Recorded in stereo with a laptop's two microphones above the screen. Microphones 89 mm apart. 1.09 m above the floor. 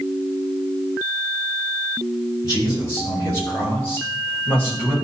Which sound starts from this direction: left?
A man speaking, at 2.4 s.